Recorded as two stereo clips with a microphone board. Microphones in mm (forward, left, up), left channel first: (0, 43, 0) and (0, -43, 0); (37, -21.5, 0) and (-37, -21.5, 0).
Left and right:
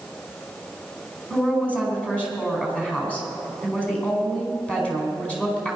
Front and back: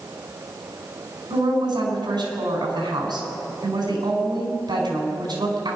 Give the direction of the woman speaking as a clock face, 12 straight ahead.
6 o'clock.